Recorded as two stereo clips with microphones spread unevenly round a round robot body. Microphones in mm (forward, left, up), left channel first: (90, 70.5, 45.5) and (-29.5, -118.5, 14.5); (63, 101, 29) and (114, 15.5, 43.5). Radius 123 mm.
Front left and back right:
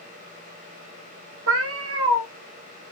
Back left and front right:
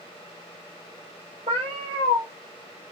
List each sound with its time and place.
1.5 s a cat meowing: 100° right, 0.7 m